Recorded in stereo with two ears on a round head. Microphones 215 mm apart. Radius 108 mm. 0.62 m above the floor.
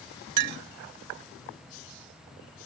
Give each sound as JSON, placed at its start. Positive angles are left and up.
{"t": 0.4, "sound": "a clink", "side_deg": -70}